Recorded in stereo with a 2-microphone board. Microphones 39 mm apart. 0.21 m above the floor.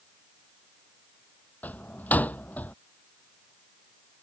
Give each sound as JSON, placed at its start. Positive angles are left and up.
{"t": 1.6, "sound": "a door slam", "side_deg": 45}